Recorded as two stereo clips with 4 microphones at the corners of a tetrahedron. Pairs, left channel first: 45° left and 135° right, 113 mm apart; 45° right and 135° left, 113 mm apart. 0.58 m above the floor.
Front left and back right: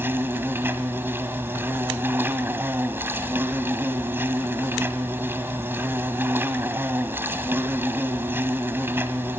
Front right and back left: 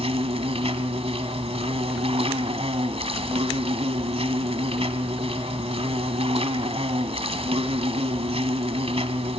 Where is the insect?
155° left, 1.7 m.